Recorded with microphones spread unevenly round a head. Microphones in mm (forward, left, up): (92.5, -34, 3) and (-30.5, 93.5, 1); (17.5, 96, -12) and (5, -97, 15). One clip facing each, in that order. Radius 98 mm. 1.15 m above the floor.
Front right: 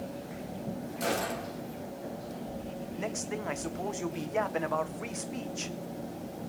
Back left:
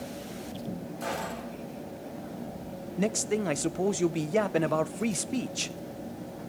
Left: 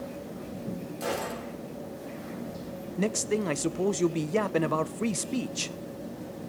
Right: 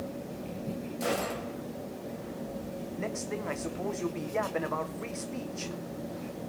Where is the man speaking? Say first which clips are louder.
Back left 9 dB, left 9 dB; 95° left, 0.7 m.